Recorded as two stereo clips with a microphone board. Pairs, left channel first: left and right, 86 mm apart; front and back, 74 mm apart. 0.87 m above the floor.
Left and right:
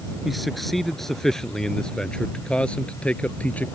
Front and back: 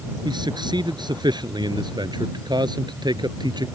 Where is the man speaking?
Straight behind; by 3.7 s 165° left.